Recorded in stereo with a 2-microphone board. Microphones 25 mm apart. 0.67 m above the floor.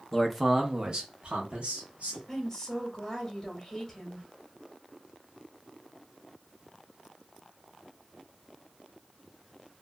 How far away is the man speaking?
About 0.5 m.